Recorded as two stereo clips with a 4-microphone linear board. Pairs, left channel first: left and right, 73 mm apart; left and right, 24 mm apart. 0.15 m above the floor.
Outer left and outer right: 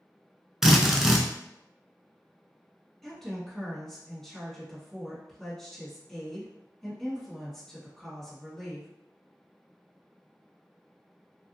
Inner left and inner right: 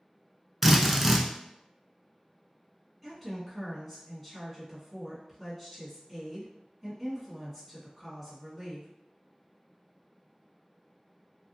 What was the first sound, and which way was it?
A drill, 5° right (ahead or behind).